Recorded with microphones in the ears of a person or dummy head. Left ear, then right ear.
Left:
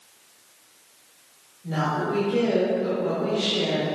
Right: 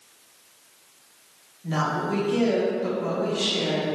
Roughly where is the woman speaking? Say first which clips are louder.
Even; right.